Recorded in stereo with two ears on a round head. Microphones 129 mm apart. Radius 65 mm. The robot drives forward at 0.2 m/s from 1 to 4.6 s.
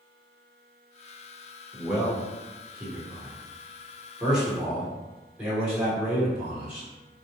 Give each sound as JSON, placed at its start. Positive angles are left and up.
{"t": 1.7, "sound": "a man speaking", "side_deg": 0, "distance_m": 1.0}